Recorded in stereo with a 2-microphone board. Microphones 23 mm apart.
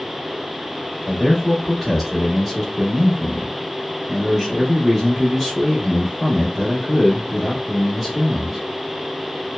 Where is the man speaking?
Centre (ahead or behind), 0.8 m.